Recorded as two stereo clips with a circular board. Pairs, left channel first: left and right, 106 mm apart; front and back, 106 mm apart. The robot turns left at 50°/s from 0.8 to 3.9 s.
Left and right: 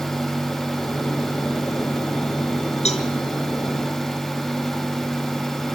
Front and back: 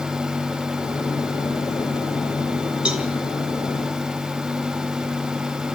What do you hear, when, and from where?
2.9 s a cowbell: 100° left, 2.5 m; by 3.1 s 90° left, 2.5 m